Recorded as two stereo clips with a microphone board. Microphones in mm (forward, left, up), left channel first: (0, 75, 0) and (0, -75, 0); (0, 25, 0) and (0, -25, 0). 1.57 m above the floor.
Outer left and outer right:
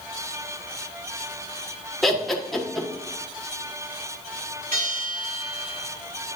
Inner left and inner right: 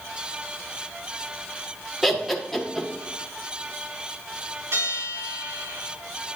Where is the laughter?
Centre (ahead or behind), 1.5 m.